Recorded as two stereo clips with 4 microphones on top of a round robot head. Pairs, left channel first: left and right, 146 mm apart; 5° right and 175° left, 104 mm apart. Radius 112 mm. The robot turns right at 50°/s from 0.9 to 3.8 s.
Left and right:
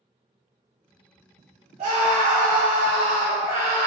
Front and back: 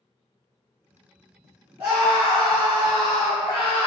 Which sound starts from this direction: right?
A scream, at 1.8 s.